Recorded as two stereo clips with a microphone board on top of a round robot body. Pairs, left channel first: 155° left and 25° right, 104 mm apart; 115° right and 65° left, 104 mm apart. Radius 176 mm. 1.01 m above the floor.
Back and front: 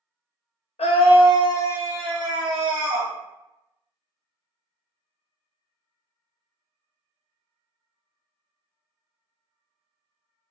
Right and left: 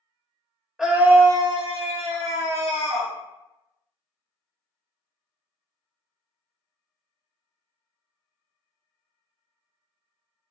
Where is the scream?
155° left, 0.6 m; by 3.1 s 50° left, 1.2 m.